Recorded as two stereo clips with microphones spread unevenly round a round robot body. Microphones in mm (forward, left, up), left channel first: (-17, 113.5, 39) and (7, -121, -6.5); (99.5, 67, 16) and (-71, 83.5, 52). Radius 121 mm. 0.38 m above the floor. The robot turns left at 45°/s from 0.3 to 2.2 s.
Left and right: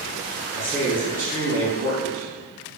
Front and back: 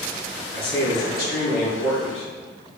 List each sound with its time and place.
0.5 s a man speaking: 15° left, 3 m; by 2.3 s 60° right, 3 m